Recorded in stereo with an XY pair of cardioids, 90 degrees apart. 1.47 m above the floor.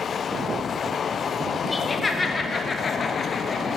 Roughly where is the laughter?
Ahead.